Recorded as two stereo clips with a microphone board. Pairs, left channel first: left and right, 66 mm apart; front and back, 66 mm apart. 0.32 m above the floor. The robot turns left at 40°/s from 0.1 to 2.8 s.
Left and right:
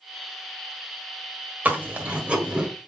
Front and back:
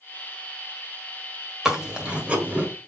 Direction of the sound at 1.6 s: 110° right.